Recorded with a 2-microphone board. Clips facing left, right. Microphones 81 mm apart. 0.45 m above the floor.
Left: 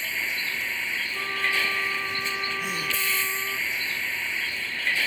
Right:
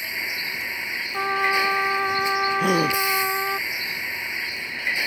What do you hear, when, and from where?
0.0 s a vehicle: 15° right (ahead or behind)
1.1 s a trumpet: 85° right
2.6 s a gasp: 65° right (ahead or behind)